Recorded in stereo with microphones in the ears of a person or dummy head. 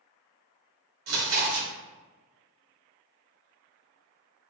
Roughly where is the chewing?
Right.